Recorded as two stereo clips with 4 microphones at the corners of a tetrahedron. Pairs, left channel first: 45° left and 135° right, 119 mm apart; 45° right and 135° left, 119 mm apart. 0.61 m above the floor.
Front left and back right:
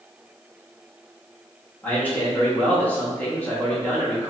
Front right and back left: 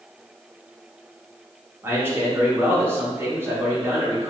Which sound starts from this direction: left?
A man speaking, at 1.8 s.